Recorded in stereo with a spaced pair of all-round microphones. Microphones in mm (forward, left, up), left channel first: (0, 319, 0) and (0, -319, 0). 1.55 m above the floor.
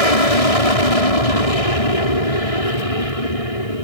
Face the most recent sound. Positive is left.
turn(degrees=60)  # may be behind; listen again after turning